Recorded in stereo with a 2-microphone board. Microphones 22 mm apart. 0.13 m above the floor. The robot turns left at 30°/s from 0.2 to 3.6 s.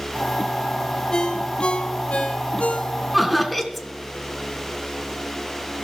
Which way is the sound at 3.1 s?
Centre (ahead or behind).